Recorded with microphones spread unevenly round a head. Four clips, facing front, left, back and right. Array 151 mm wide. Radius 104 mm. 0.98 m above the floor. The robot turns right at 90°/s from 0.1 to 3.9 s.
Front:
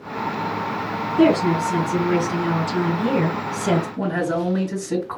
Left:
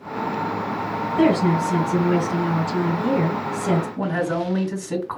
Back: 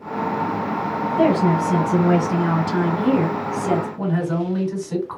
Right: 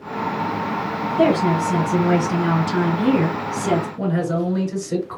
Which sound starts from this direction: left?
A woman speaking, at 1.2 s.